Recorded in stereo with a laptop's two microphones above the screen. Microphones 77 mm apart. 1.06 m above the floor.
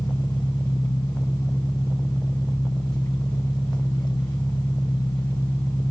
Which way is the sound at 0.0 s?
70° left (ahead or behind).